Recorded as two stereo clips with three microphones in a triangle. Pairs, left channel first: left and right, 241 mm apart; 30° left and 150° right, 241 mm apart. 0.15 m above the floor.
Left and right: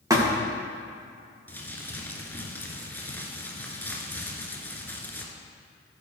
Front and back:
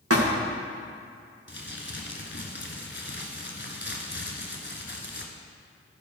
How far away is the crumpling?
About 1.3 m.